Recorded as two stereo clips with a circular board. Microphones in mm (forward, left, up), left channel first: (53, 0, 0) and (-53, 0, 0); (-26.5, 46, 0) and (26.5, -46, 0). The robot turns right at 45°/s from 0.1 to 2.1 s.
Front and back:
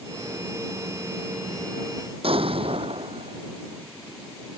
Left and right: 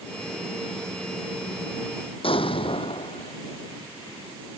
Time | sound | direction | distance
2.2 | an explosion | 150° left | ?